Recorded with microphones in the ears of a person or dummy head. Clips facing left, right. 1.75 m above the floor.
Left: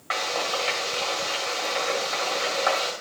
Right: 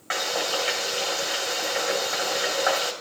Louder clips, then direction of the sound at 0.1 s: Right 1 dB; 20° right (ahead or behind).